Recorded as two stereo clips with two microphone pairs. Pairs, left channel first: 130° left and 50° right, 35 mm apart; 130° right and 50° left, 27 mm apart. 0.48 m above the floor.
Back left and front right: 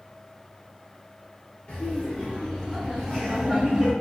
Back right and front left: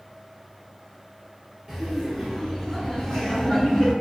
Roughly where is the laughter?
Behind left.